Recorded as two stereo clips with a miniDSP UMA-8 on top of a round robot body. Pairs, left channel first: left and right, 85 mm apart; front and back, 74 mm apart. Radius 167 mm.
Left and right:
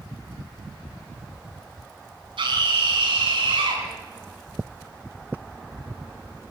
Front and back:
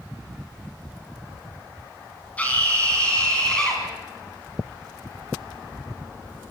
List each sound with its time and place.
2.4 s a scream: 70° right, 5 m; by 3.8 s 80° right, 5 m